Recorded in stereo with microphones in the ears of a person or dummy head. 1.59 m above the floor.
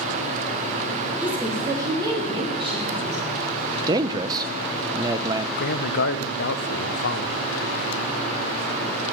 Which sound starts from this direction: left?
A man speaking, at 5.6 s.